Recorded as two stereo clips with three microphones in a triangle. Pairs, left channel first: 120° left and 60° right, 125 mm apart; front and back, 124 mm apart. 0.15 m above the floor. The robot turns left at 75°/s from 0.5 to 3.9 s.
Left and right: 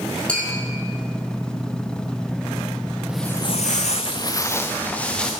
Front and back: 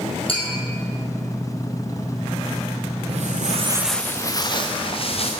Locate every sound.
0.3 s tapping: 40° left, 3 m; by 0.6 s 35° left, 3 m
3.1 s footsteps: 140° right, 0.9 m; by 5.3 s 35° left, 1.8 m